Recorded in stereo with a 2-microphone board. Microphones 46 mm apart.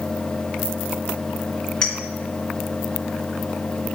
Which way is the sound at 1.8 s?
15° left (ahead or behind).